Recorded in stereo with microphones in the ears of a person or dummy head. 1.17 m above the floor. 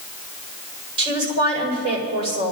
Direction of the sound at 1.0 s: 35° right (ahead or behind).